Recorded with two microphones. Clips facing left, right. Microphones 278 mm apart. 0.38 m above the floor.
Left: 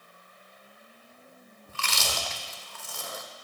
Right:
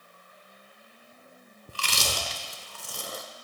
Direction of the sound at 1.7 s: 40° right (ahead or behind).